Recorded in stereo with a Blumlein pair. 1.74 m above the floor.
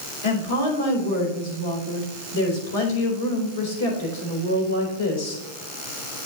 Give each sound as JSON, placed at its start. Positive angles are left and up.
{"t": 0.2, "sound": "a woman speaking", "azimuth_deg": 65, "distance_m": 4.0}